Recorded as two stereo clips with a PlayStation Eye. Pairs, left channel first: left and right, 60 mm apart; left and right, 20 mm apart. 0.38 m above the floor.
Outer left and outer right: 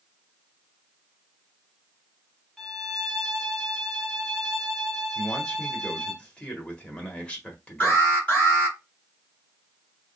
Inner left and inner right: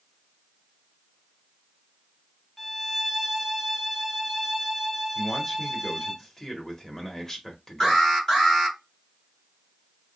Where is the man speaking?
20° left (ahead or behind), 1.4 m.